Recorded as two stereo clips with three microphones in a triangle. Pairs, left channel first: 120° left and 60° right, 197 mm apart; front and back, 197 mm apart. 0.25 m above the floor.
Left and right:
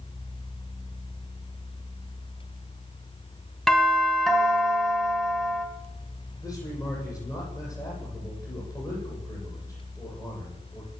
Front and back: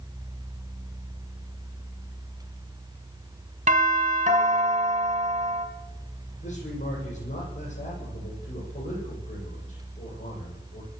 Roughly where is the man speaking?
Ahead left.